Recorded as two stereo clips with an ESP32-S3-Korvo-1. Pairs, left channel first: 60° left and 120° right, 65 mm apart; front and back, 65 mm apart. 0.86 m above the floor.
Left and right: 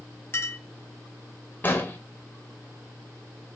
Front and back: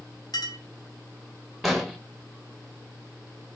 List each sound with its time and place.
0.3 s a clink: 5° left, 0.8 m
1.6 s an explosion: 95° left, 0.8 m